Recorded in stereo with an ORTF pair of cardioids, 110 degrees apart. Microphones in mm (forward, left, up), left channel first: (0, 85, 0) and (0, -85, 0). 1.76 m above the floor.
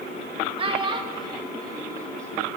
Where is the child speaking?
35° right, 2 m; by 2.5 s 15° right, 3 m.